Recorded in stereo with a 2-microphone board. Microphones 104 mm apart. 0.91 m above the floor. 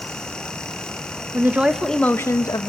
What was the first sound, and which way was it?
A woman speaking, 25° right (ahead or behind).